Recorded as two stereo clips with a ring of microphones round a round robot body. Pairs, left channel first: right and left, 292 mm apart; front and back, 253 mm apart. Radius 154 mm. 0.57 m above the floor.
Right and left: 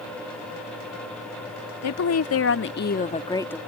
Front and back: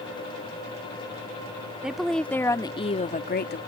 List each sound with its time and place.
1.8 s a woman speaking: 95° right; by 3.6 s 5° right